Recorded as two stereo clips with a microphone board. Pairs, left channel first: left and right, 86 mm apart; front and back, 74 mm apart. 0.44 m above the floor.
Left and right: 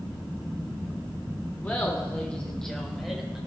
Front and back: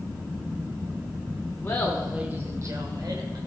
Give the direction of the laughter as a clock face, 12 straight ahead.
11 o'clock.